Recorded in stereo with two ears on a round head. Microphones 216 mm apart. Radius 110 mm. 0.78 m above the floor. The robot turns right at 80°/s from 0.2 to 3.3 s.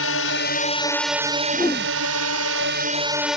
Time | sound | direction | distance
0.0 | a drone | 110° left | ?
1.5 | a whoosh | straight ahead | ?